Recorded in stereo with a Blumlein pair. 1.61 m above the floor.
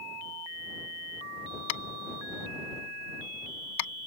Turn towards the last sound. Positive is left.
turn(degrees=50)